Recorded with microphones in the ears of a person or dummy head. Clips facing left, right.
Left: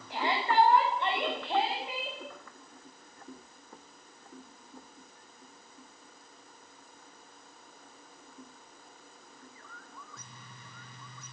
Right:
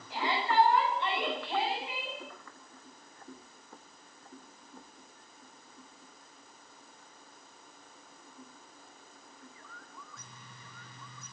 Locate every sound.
0.1 s a shout: 55° left (ahead or behind), 9.5 m; by 2.2 s 40° left (ahead or behind), 10.5 m